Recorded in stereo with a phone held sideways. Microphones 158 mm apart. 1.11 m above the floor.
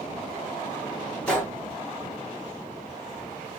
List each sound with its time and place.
1.3 s a gunshot: 5° left (ahead or behind), 1.4 m